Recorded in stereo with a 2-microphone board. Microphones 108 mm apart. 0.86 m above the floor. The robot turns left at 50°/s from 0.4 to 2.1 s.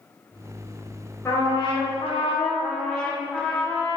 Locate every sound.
1.2 s a trumpet: 155° left, 2 m; by 2.5 s 115° left, 2 m
2.6 s a trumpet: 10° left (ahead or behind), 1.3 m